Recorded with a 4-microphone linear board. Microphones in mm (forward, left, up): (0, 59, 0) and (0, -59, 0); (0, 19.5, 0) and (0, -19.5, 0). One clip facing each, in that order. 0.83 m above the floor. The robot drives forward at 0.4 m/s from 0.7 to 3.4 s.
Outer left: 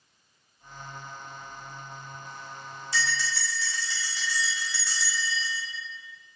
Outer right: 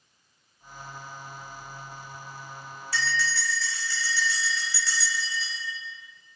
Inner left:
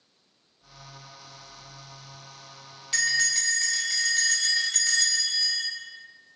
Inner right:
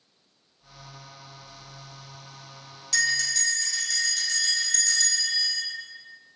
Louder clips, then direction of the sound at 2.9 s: Outer right 2 dB, even; 20° left (ahead or behind).